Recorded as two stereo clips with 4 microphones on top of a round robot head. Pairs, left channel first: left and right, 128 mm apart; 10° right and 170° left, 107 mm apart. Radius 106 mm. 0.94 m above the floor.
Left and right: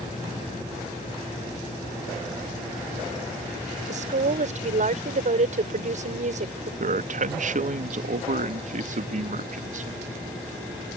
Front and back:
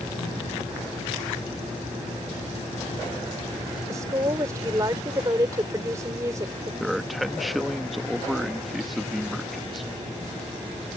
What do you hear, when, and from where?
3.9 s a woman speaking: 120° right
6.8 s a man speaking: 100° right